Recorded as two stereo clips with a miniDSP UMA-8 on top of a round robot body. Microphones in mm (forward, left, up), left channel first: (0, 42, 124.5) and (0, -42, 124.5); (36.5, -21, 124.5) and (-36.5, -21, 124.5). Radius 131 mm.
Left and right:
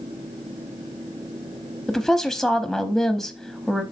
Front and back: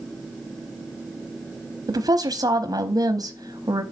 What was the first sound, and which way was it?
A woman speaking, straight behind.